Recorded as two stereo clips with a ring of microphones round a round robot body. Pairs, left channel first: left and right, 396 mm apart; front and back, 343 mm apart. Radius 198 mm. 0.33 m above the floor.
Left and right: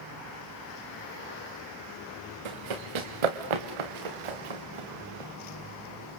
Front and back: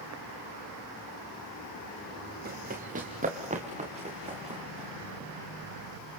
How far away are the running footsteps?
About 2 m.